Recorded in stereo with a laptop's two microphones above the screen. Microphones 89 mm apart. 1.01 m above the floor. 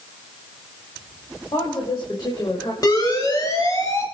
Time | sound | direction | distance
1.5 | a woman speaking | 50° left (ahead or behind) | 6 m
2.8 | a siren | 45° left (ahead or behind) | 7 m